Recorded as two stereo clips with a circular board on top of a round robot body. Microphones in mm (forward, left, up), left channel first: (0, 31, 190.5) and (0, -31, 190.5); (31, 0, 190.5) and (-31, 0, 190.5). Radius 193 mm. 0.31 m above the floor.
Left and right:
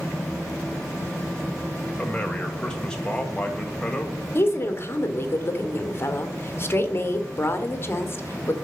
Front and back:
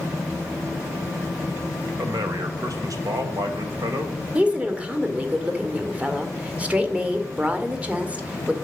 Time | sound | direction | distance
2.0 | a man speaking | 170° left | 2 m
4.3 | a woman speaking | 120° left | 1.8 m